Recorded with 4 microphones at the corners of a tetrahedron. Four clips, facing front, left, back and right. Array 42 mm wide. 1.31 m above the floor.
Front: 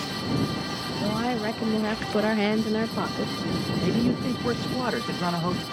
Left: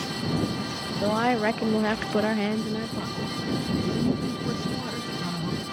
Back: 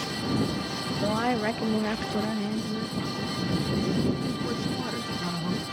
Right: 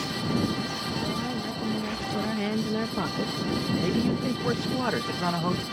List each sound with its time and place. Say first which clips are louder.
1.0 s a woman speaking: left 7 dB, back 1 dB; 105° left; by 3.7 s 40° right
3.8 s a man speaking: even, front 3 dB; 45° right